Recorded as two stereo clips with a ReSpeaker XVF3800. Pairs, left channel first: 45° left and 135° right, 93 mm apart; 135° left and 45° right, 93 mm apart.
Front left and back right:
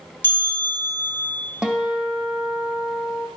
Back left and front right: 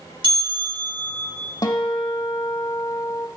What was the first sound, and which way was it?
A bell, 25° right.